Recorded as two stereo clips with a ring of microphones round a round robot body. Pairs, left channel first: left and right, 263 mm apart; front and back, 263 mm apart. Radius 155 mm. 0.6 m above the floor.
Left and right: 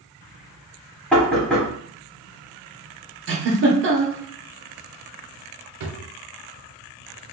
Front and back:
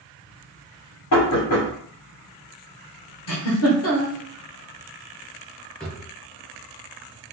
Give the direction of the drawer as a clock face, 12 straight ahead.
3 o'clock.